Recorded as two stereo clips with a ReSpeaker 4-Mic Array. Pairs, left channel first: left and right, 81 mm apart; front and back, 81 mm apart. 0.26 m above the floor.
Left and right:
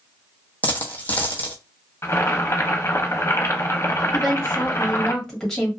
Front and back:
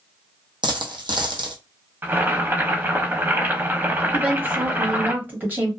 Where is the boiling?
125° left, 0.6 m.